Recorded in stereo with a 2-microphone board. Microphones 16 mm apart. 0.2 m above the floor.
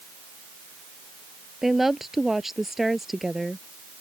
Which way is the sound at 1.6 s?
20° right (ahead or behind).